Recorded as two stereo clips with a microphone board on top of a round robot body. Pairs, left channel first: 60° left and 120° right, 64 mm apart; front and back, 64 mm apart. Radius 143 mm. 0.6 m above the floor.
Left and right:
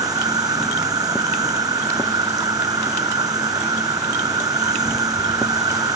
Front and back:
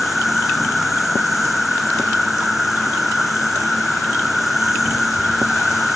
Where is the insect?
90° right.